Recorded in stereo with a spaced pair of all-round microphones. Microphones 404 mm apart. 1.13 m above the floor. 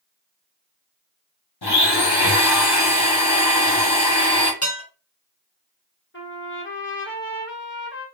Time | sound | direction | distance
1.6 | a blender | 70° left (ahead or behind) | 1.2 m
4.6 | dishes clattering | 35° left (ahead or behind) | 1.5 m
6.1 | a trumpet | 30° left (ahead or behind) | 1.1 m